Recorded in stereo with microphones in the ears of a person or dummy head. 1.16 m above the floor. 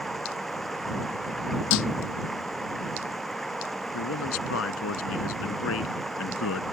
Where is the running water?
5° left (ahead or behind).